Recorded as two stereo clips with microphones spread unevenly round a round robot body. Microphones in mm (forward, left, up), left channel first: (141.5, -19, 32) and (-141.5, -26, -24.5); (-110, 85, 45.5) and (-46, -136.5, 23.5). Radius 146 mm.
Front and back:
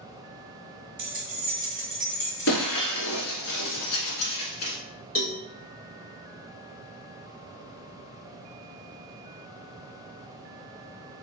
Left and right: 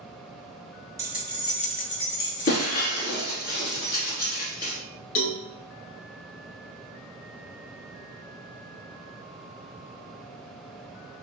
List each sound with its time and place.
1.0 s keys jangling: 140° right, 1.1 m; by 2.7 s 85° left, 1.6 m
2.5 s breaking glass: 45° left, 1.2 m
5.2 s a cowbell: 80° left, 1.3 m